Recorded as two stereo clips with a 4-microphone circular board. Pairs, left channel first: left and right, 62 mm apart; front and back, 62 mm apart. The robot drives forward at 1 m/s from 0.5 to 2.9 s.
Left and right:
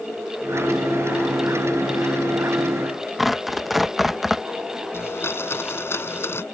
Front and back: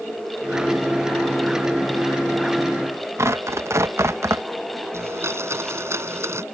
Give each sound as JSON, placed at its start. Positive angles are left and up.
{"t": 3.2, "sound": "tearing paper", "azimuth_deg": 180}
{"t": 4.9, "sound": "a blender", "azimuth_deg": 135}